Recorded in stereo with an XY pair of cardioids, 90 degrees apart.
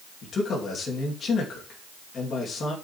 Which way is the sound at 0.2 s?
55° left.